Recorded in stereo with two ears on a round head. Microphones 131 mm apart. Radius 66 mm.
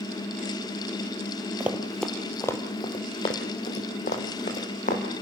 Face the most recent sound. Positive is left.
turn(degrees=55)  # may be behind; listen again after turning